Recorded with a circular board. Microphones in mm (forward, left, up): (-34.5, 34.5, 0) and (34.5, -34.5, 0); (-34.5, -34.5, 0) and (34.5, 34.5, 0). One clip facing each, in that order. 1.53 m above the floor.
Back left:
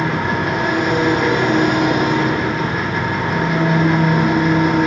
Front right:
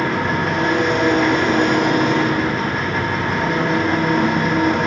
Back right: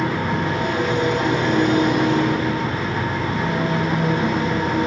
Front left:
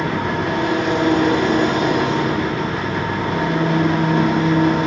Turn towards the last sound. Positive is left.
turn(degrees=50)